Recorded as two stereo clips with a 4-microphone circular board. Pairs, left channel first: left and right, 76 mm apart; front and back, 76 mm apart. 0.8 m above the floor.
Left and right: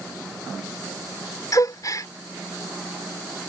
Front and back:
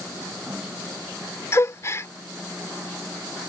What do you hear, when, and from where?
1.5 s a gasp: 50° left